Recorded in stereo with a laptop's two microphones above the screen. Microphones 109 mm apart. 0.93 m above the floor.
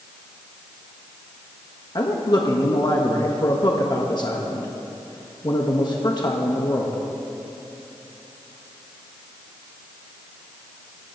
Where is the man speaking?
40° left (ahead or behind), 1.2 m.